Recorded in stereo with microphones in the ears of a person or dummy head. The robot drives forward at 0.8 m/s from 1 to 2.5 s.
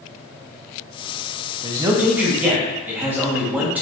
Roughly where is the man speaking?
Right.